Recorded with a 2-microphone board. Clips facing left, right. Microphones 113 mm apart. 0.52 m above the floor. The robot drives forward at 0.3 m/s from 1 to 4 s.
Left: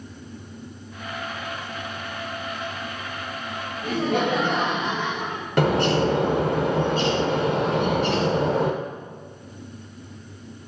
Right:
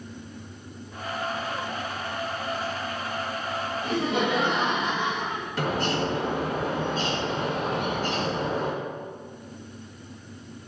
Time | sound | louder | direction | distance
3.8 | laughter | left 3 dB | 55° left (ahead or behind) | 2 m
5.6 | a bird | left 7 dB | 75° left (ahead or behind) | 0.7 m